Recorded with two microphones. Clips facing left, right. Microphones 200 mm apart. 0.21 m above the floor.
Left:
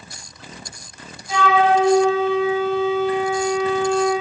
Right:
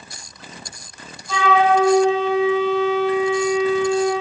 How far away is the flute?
About 4 m.